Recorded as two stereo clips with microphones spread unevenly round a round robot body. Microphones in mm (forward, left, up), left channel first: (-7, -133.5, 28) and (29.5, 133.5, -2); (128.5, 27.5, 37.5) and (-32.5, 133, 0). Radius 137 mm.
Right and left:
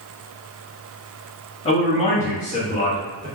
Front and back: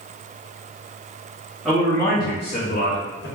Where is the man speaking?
155° right, 1.0 m; by 3.3 s 35° right, 1.2 m.